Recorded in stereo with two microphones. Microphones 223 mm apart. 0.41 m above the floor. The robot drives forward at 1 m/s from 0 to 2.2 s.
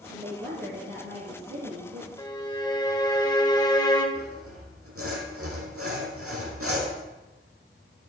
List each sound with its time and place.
0.1 s a woman speaking: 50° right (ahead or behind), 5.5 m; by 2.1 s 65° right (ahead or behind), 4 m
2.2 s a violin: 20° left (ahead or behind), 1.8 m
4.2 s sawing: 85° right, 4.5 m